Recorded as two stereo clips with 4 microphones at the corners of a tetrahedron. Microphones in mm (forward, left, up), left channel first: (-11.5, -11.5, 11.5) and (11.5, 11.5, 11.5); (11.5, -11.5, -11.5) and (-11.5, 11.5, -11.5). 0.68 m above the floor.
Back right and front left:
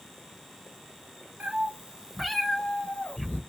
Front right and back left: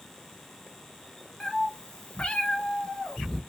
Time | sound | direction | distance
1.4 | a cat meowing | 20° left | 0.9 m